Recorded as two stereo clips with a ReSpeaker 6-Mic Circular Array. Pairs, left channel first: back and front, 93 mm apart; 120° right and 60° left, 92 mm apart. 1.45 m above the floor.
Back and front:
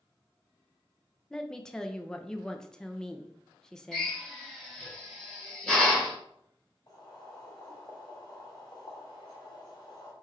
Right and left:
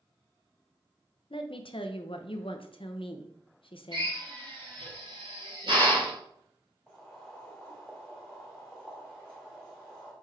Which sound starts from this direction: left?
A drill, at 3.9 s.